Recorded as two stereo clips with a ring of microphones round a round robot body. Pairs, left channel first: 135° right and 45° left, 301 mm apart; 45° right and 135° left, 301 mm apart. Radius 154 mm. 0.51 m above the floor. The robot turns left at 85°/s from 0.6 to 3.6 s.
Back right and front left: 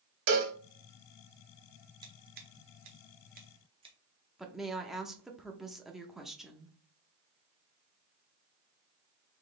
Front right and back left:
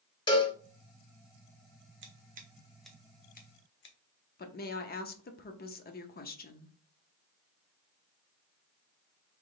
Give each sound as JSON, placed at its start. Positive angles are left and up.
{"t": 0.3, "sound": "a cowbell", "azimuth_deg": 30, "distance_m": 0.9}
{"t": 2.0, "sound": "scissors", "azimuth_deg": 115, "distance_m": 1.0}
{"t": 4.4, "sound": "a woman speaking", "azimuth_deg": -45, "distance_m": 0.7}